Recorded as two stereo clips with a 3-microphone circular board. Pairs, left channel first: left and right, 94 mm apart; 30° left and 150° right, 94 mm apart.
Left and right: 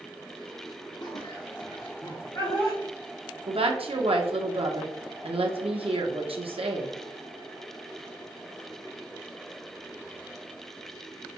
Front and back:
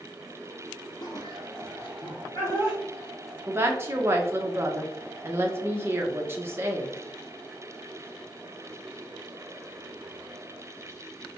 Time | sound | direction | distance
1.0 | laughter | 55° left | 0.5 m
3.5 | a woman speaking | 85° right | 0.7 m